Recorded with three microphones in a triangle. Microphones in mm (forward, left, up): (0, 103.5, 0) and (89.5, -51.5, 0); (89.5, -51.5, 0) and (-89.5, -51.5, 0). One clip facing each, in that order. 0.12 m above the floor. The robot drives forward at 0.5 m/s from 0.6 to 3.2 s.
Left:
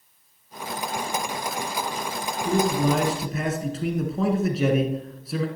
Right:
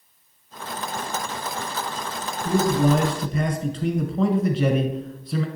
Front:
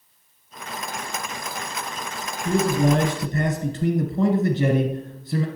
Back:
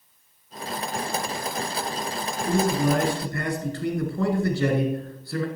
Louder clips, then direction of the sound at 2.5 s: Right 2 dB, front 2 dB; 25° left.